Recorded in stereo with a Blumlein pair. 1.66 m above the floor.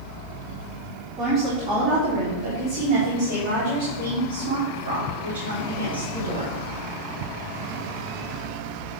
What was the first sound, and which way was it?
A woman speaking, 30° right.